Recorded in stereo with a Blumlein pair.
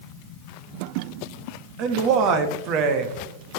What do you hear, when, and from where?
1.8 s a man speaking: 40° right, 1.0 m